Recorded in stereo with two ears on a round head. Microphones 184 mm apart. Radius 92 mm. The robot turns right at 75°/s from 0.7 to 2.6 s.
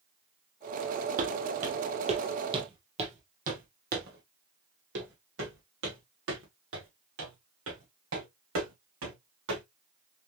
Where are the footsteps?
40° right (ahead or behind), 1.3 m; by 9.6 s 75° right (ahead or behind), 4 m.